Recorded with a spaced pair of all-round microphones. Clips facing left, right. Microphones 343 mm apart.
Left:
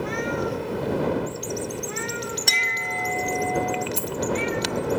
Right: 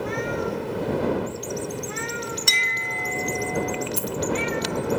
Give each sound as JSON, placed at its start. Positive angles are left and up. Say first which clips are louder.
{"t": 2.5, "sound": "a clink", "louder": "left 1 dB", "side_deg": -10}
{"t": 4.0, "sound": "a dropped coin", "louder": "right 1 dB", "side_deg": 50}